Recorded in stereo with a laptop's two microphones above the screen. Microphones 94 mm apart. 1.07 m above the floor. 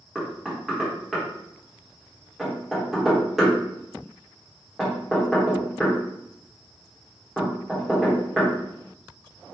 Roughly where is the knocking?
Centre.